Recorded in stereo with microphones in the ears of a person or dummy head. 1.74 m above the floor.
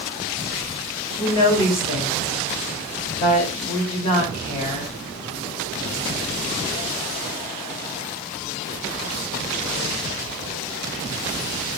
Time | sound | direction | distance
1.2 | a woman speaking | 30° left (ahead or behind) | 1.4 m